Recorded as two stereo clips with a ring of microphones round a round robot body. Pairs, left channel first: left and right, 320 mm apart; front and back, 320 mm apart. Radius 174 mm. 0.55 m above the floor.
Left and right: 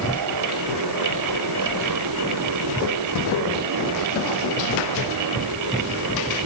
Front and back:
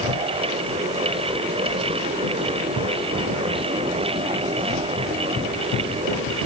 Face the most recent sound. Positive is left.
No sound to turn to.